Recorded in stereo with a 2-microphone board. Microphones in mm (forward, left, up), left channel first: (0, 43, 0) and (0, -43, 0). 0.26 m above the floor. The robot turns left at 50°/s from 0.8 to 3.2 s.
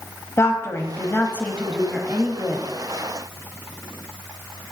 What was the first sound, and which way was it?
A woman speaking, 60° left.